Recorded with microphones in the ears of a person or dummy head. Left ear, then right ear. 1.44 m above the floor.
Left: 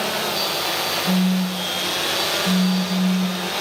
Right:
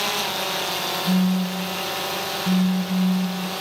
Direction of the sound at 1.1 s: 15° right (ahead or behind).